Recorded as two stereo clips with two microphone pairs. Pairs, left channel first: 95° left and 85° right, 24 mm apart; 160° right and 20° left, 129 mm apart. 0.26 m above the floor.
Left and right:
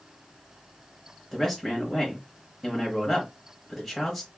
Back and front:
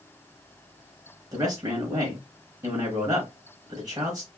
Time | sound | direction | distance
1.3 | a man speaking | 10° left | 1.0 m